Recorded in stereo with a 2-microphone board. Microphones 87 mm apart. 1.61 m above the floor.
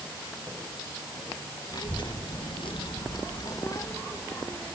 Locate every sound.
1.7 s a child speaking: 55° left (ahead or behind), 2 m; by 4.8 s 20° left (ahead or behind), 3 m